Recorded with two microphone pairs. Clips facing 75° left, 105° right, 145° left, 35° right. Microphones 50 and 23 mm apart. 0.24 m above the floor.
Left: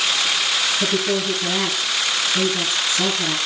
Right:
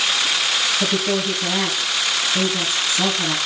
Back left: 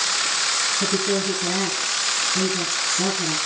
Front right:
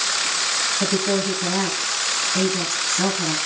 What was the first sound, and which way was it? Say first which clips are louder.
A woman speaking: even, front right 1 dB; 40° right.